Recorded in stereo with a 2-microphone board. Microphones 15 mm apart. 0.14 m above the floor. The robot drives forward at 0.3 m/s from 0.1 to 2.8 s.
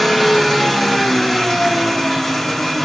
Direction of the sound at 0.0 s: Centre (ahead or behind).